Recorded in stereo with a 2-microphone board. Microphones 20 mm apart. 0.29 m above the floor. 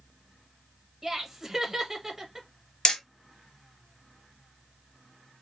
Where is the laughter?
25° right (ahead or behind), 0.9 m.